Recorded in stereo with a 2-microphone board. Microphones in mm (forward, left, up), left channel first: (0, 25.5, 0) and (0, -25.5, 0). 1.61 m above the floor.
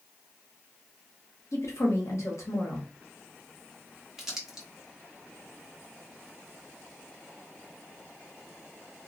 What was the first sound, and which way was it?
A woman speaking, 70° left (ahead or behind).